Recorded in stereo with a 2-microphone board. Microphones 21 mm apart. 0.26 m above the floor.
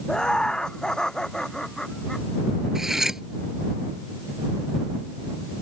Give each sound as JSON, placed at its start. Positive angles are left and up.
{"t": 0.1, "sound": "laughter", "side_deg": 40}
{"t": 2.8, "sound": "cutlery clinking", "side_deg": -20}